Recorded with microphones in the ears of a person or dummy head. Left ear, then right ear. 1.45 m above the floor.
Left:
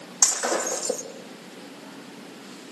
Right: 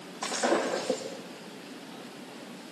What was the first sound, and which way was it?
Breaking glass, 80° left.